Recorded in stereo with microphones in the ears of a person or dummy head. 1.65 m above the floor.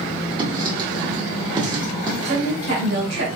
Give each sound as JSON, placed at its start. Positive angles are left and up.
{"t": 0.4, "sound": "writing", "side_deg": -30, "distance_m": 1.0}
{"t": 2.2, "sound": "a woman speaking", "side_deg": -80, "distance_m": 1.8}